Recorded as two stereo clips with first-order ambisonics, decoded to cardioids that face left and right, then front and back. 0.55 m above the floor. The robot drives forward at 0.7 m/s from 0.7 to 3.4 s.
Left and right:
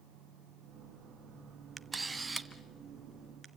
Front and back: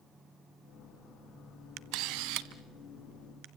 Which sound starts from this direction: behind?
A camera shutter, at 1.8 s.